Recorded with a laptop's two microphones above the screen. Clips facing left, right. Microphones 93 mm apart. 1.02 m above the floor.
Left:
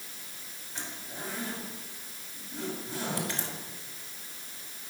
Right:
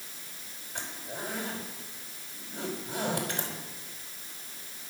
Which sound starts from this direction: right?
A zipper, at 0.8 s.